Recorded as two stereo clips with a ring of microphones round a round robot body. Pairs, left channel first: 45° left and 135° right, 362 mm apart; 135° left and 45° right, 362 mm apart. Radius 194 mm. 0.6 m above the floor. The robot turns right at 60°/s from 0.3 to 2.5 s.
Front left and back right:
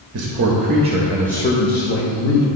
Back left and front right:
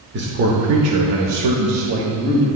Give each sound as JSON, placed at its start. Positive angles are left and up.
{"t": 0.1, "sound": "a man speaking", "azimuth_deg": -100, "distance_m": 0.9}